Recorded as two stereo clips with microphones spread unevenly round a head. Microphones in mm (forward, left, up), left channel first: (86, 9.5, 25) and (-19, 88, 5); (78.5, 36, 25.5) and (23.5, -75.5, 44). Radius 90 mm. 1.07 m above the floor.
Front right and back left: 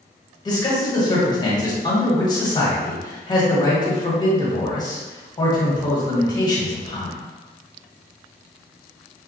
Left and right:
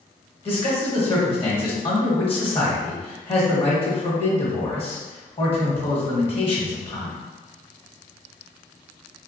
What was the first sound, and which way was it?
A man speaking, 25° left.